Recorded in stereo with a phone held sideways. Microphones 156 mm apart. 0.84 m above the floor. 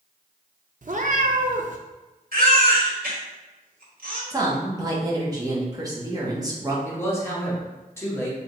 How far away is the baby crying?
About 1.2 m.